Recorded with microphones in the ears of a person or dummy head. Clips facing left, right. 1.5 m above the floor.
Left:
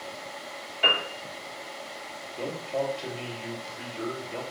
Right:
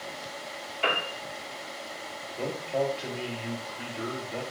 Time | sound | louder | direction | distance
0.8 | a piano | even | 5° left (ahead or behind) | 2.5 m
2.4 | a man speaking | right 1 dB | centre (ahead or behind) | 2.5 m